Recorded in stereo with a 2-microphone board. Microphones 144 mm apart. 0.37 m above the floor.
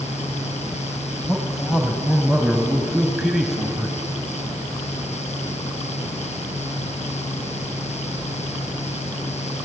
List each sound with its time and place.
1.2 s a man speaking: 5° right (ahead or behind), 2 m